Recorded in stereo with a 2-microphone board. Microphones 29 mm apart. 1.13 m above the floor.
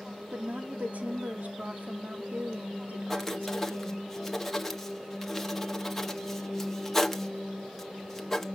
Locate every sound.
0.3 s a woman speaking: 75° right (ahead or behind), 2 m
3.1 s writing: 10° left (ahead or behind), 1.2 m